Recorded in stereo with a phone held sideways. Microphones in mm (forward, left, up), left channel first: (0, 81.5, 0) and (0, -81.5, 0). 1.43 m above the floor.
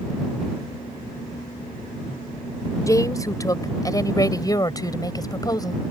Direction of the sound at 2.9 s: 20° left (ahead or behind).